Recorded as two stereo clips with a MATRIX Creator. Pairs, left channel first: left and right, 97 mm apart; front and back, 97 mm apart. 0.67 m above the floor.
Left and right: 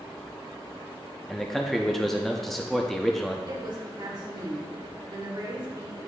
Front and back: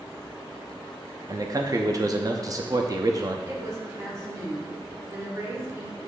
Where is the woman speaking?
125° right, 1.9 m.